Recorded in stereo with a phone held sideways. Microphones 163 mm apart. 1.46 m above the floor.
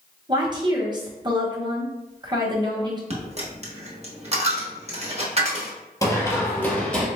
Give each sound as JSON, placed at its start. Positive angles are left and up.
{"t": 0.3, "sound": "a woman speaking", "side_deg": -25, "distance_m": 1.0}
{"t": 3.1, "sound": "a dropped coin", "side_deg": -40, "distance_m": 0.9}
{"t": 6.0, "sound": "running footsteps", "side_deg": 20, "distance_m": 1.5}